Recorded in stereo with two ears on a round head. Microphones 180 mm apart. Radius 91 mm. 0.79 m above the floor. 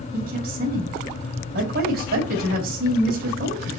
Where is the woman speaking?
50° right (ahead or behind), 4 m.